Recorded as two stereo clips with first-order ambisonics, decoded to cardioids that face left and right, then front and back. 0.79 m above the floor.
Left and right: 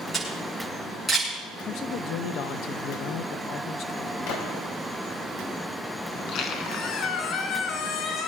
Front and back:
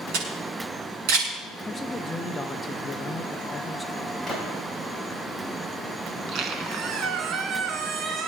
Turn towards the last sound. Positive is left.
turn(degrees=130)